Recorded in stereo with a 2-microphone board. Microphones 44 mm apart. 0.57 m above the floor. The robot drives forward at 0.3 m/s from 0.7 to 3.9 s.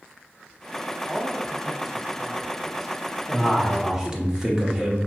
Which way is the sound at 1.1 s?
10° right (ahead or behind).